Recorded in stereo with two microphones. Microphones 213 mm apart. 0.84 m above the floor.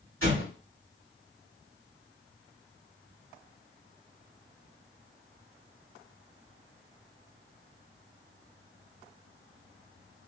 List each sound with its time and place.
0.2 s an explosion: 75° right (ahead or behind), 2.5 m